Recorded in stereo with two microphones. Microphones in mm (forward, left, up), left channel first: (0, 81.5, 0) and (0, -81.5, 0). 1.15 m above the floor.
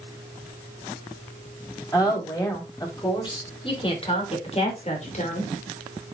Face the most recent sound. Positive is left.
turn(degrees=50)  # may be behind; listen again after turning